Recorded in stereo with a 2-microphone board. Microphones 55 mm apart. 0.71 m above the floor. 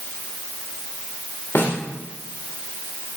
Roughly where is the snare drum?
Left.